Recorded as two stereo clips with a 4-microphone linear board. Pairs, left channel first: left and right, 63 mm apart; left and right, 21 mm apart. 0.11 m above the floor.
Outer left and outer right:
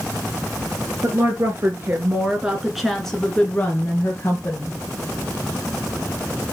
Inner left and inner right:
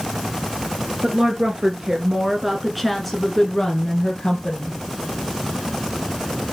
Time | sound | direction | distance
1.0 | a woman speaking | 45° right (ahead or behind) | 2.5 m